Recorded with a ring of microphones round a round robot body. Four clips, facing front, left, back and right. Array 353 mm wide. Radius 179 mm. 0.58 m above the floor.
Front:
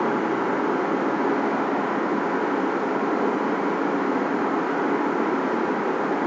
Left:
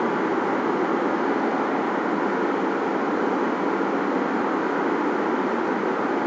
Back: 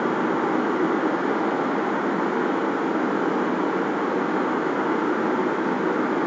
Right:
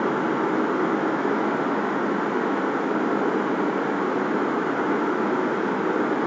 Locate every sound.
0.0 s running water: 135° right, 3 m